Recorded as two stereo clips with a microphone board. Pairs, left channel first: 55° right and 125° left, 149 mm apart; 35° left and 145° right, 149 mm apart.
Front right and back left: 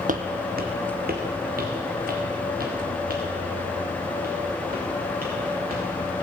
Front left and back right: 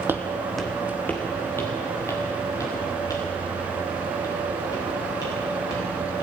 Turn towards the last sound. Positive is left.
turn(degrees=100)